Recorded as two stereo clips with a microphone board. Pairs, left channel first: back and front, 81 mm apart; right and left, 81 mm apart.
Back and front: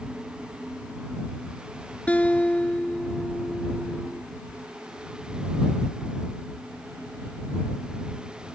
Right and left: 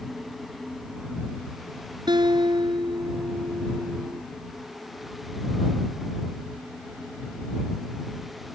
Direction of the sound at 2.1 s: 105° left.